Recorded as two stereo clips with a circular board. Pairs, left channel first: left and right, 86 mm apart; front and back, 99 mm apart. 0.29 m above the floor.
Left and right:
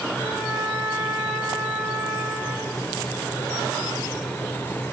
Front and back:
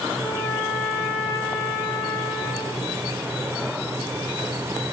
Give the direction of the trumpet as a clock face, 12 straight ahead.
2 o'clock.